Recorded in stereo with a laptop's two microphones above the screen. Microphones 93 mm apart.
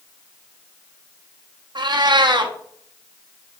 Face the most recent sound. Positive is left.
turn(degrees=-55)  # may be behind; listen again after turning